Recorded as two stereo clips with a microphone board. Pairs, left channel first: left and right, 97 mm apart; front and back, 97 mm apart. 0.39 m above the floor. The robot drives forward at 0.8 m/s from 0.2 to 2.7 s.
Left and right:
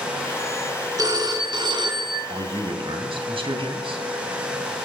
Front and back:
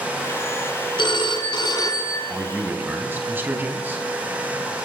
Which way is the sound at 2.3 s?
105° right.